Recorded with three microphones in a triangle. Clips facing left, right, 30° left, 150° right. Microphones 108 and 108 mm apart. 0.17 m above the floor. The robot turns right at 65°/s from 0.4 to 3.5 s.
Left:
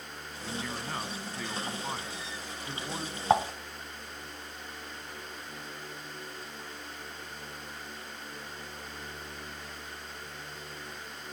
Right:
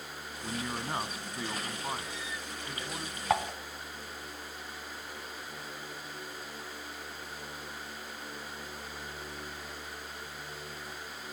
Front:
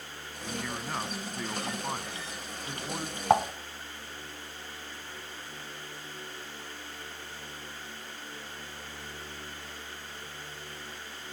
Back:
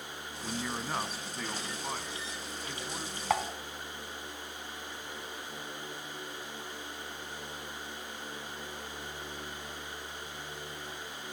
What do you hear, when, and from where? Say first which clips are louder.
0.4 s a man speaking: right 1 dB, even; 110° right, 1.0 m; by 3.2 s 75° left, 1.0 m
3.3 s dishes clattering: left 4 dB, front 7 dB; 45° left, 0.9 m; by 3.5 s 55° left, 0.9 m